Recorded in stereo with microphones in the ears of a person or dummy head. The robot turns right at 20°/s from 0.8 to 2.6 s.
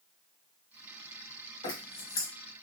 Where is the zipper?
30° left (ahead or behind), 1.5 m; by 2.3 s 20° left (ahead or behind), 1.5 m.